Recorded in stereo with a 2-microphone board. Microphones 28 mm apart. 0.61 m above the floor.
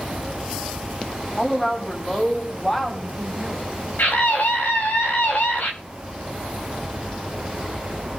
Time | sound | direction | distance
1.4 | a woman speaking | 15° left (ahead or behind) | 3.5 m
4.0 | a scream | 75° left (ahead or behind) | 3 m